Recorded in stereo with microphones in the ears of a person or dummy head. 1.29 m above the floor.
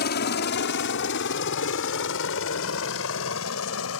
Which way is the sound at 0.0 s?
55° left (ahead or behind).